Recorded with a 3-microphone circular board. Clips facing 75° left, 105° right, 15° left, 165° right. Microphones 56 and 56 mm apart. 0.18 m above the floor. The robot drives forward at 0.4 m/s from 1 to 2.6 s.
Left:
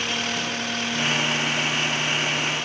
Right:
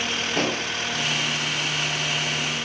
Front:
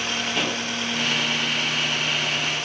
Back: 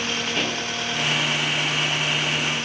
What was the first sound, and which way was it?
An explosion, 75° right.